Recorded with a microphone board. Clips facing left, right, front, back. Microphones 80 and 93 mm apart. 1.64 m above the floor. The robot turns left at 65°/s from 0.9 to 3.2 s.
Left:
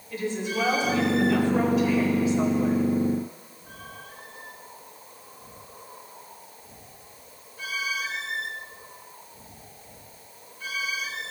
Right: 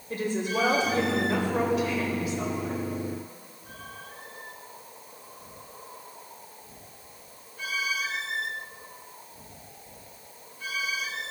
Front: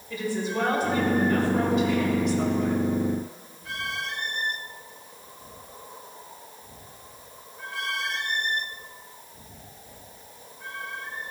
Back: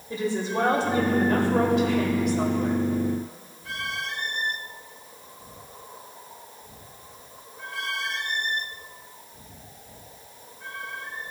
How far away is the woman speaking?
About 1.7 m.